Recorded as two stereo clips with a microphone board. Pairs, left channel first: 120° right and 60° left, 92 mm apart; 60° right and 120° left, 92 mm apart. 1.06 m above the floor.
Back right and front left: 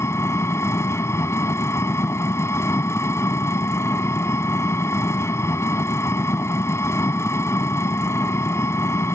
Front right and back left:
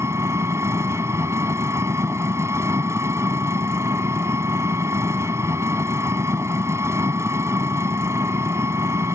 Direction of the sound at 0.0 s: Straight behind.